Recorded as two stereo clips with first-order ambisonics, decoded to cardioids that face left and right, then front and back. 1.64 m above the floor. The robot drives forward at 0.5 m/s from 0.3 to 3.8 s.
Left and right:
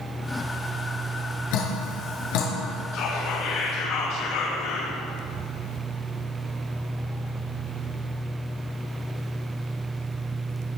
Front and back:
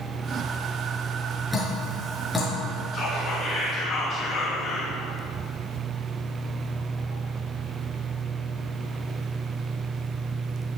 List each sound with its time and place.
1.5 s dripping: 85° left, 5.5 m; by 2.5 s 90° left, 5.5 m
2.9 s whispering: 55° left, 6 m; by 4.9 s 60° left, 5.5 m